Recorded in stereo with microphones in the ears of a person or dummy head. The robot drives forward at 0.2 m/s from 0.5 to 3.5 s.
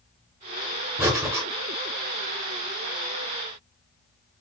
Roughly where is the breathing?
Centre.